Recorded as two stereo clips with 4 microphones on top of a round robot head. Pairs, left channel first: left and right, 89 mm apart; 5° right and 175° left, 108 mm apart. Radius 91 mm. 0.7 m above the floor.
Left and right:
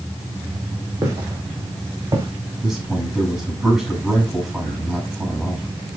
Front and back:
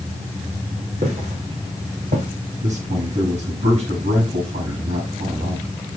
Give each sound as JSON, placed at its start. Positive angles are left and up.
{"t": 1.0, "sound": "footsteps", "azimuth_deg": -150, "distance_m": 3.5}
{"t": 2.6, "sound": "a man speaking", "azimuth_deg": -175, "distance_m": 6.5}